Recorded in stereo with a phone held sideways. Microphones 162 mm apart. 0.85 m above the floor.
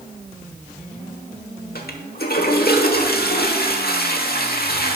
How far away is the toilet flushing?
About 1.2 m.